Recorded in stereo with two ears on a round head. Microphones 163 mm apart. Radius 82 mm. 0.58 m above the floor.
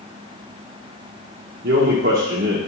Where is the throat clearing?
I don't hear throat clearing.